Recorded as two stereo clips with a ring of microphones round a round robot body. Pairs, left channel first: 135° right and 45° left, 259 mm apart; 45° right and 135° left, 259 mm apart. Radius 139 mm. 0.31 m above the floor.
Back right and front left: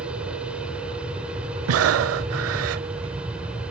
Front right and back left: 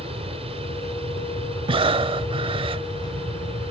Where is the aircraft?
125° left.